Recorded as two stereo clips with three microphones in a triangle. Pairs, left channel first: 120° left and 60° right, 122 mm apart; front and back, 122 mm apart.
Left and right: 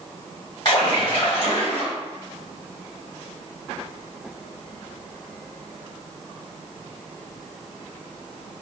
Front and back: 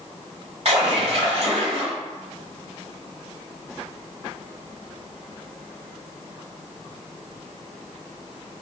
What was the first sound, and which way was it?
A splash, 160° left.